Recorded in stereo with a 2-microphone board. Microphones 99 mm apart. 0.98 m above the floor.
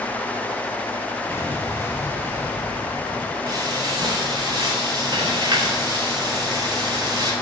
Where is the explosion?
25° left (ahead or behind), 3 m.